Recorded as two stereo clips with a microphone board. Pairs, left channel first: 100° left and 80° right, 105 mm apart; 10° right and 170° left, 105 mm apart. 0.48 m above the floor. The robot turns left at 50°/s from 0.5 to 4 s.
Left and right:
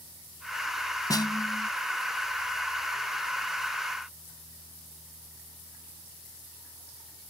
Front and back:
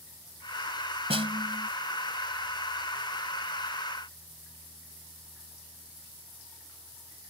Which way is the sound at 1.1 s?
150° left.